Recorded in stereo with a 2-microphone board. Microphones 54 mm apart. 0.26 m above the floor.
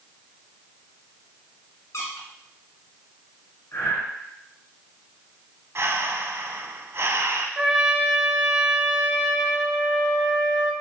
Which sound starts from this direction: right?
Breathing, at 5.8 s.